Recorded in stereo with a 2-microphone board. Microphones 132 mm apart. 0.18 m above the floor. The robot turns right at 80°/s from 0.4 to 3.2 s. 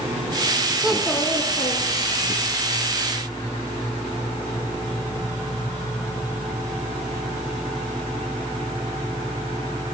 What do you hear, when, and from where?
0.8 s a child speaking: 10° right, 1.4 m; by 2.4 s 115° left, 1.4 m